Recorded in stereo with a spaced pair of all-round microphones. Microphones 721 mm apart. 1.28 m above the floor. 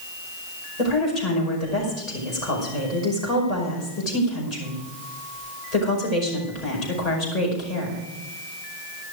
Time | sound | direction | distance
0.8 | a woman speaking | 60° left (ahead or behind) | 5.5 m